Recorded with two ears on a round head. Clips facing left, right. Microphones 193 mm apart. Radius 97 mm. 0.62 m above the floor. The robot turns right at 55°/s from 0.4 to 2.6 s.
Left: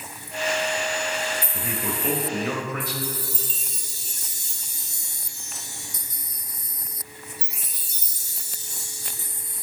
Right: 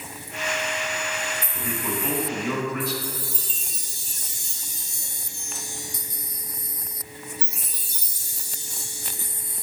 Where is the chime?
5° left (ahead or behind), 3.5 m.